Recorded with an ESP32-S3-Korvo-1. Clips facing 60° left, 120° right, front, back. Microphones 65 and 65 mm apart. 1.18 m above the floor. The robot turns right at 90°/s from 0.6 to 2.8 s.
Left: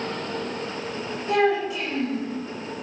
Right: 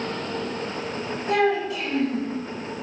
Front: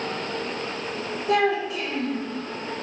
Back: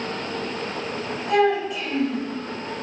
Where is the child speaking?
25° right, 1.2 m; by 2.2 s 60° left, 1.2 m.